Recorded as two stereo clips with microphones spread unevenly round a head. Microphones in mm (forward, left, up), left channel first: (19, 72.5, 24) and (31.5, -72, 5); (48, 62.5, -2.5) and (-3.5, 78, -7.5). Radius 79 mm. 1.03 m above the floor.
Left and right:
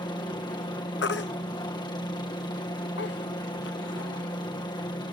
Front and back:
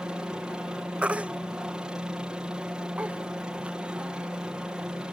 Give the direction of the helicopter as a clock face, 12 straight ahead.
8 o'clock.